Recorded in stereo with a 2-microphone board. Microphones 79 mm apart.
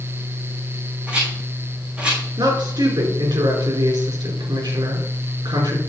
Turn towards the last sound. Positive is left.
turn(degrees=-60)  # may be behind; listen again after turning